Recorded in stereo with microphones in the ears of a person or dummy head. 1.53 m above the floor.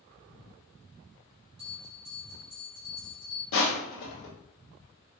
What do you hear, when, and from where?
1.6 s a bell: 25° right (ahead or behind), 1.3 m
3.5 s crushing: 60° left (ahead or behind), 0.7 m